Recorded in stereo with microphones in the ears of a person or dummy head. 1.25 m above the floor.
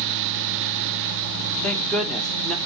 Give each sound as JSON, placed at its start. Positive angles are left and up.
{"t": 1.6, "sound": "a woman speaking", "side_deg": 5, "distance_m": 1.1}